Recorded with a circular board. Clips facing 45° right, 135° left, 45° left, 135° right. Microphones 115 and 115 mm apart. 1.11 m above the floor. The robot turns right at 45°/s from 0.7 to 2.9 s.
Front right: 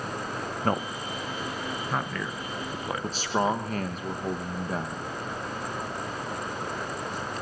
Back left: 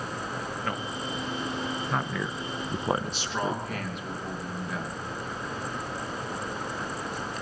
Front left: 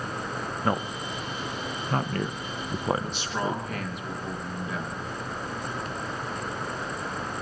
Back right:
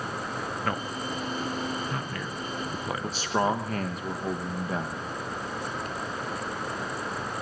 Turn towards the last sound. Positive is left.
turn(degrees=-90)